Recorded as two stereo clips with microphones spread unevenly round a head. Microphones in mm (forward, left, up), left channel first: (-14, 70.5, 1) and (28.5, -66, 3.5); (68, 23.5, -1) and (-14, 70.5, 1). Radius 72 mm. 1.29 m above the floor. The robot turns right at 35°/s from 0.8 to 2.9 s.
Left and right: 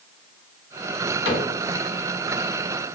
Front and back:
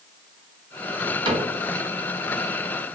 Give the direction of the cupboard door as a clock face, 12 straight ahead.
8 o'clock.